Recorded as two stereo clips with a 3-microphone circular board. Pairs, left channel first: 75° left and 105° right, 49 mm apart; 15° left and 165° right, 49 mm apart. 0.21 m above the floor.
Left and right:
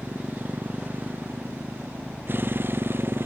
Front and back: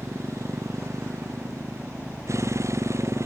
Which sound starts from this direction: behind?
A motorcycle, at 0.0 s.